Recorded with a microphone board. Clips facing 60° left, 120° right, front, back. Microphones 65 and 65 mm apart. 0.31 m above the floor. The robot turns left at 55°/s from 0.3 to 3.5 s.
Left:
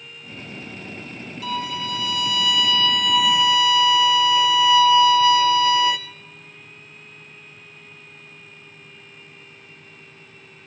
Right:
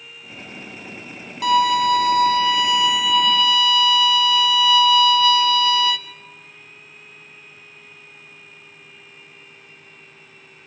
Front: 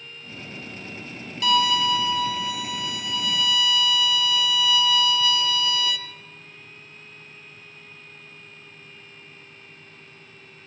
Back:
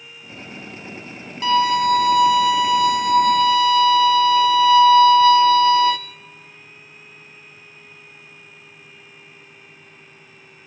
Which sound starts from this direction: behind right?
A violin, at 1.4 s.